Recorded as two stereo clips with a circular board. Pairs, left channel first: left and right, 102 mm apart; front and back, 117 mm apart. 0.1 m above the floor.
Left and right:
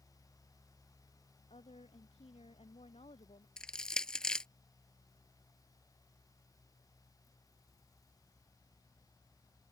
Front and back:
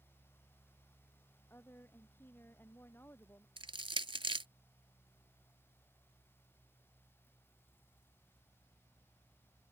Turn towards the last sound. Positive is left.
turn(degrees=170)